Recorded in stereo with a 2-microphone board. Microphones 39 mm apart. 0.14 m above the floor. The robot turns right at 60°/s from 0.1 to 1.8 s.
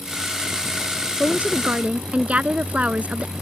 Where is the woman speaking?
110° right; by 3.3 s 75° right.